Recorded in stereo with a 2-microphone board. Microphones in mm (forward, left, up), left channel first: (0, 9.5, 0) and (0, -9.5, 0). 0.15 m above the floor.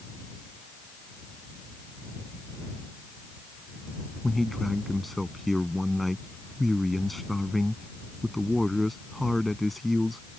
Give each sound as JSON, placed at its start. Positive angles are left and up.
{"t": 4.2, "sound": "a man speaking", "side_deg": 5}